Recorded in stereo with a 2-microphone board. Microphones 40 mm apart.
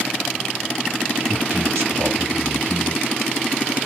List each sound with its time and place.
1.3 s a man speaking: 70° right (ahead or behind), 2.5 m